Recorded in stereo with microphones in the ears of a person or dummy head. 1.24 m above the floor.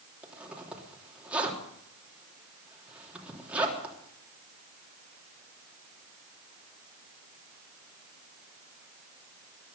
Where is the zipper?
10° right (ahead or behind), 3 m.